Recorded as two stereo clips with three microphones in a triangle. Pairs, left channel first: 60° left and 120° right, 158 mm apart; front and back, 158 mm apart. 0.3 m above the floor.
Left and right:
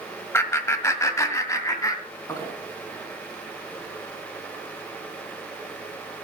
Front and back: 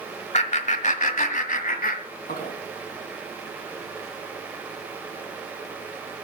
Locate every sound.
0.3 s laughter: 5° right, 1.2 m